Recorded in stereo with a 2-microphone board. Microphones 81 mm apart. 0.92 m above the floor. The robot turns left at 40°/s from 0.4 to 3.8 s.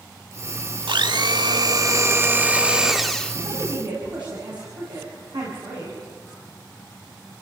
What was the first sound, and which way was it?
A blender, 90° right.